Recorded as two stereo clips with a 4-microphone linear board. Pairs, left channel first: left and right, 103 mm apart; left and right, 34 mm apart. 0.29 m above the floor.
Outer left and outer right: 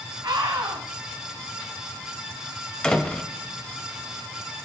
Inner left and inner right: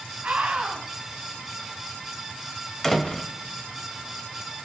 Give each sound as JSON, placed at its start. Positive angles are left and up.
{"t": 0.2, "sound": "a scream", "side_deg": -50, "distance_m": 1.8}
{"t": 2.8, "sound": "a door slam", "side_deg": 10, "distance_m": 1.1}